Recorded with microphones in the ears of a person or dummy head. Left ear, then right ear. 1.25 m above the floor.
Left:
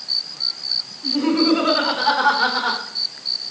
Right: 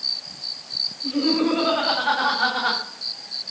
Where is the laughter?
20° left (ahead or behind), 4 m; by 2.8 s 10° right (ahead or behind), 3 m.